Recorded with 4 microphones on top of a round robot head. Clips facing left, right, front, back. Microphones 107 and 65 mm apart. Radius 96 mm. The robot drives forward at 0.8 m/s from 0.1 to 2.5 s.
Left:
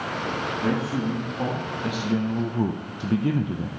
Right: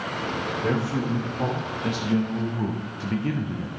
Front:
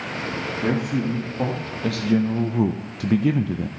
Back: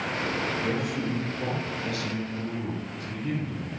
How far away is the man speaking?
About 2.0 m.